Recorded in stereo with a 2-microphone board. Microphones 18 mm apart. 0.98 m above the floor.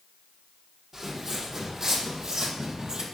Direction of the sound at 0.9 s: 20° right (ahead or behind).